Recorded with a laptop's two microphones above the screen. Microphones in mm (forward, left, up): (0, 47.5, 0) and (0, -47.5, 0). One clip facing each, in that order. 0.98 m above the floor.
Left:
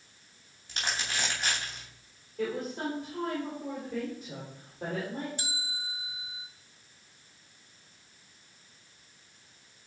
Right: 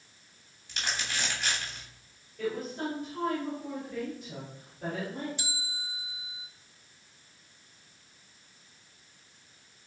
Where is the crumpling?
40° left (ahead or behind), 2.5 m.